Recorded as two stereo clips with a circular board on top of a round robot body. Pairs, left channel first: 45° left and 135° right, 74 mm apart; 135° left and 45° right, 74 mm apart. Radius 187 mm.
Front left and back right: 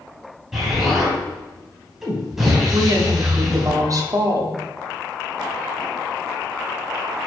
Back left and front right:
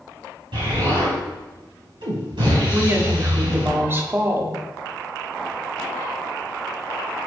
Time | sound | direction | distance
0.5 | an explosion | 55° right | 3.5 m
2.7 | a woman speaking | 100° right | 1.4 m